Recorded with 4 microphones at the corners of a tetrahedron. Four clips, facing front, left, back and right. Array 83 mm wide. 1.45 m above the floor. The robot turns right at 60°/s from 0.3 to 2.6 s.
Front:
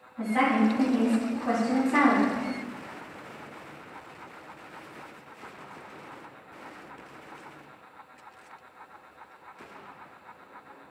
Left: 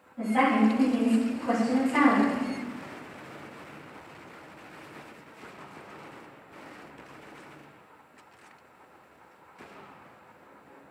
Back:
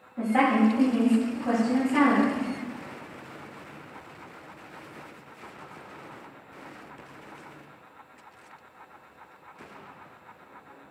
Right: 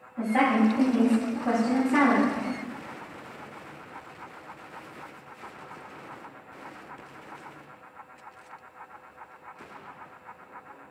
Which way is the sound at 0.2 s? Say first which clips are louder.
Even, back 2 dB; 155° right.